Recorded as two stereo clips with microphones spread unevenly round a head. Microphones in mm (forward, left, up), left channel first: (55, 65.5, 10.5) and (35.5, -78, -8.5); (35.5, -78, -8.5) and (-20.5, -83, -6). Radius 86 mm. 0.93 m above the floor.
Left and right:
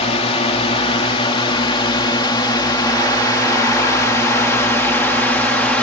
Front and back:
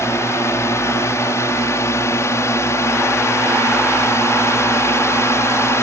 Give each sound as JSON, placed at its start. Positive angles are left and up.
{"t": 0.0, "sound": "a drone", "azimuth_deg": 40}